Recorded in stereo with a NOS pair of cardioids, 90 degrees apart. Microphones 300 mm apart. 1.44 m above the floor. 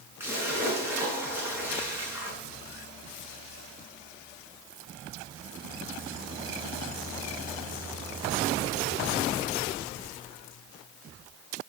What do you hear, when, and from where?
0.2 s a splash: 5° right, 8 m